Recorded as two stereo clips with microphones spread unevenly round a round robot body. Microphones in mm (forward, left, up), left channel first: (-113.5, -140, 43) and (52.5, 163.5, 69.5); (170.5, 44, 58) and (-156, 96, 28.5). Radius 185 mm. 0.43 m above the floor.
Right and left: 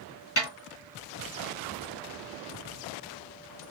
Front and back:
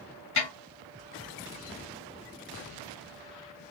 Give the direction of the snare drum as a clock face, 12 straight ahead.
2 o'clock.